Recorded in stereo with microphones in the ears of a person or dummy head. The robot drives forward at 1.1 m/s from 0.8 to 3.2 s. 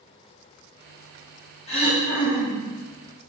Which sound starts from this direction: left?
Throat clearing, at 1.7 s.